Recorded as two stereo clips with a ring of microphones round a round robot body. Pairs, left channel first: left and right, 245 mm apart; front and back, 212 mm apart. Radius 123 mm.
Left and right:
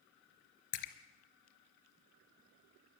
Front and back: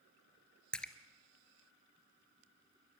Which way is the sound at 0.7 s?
85° left.